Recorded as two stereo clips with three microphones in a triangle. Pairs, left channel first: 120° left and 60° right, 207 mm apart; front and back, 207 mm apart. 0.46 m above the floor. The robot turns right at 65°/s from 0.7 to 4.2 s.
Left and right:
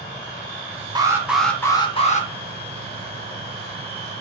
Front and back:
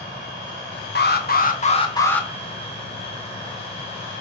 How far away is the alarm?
About 0.6 m.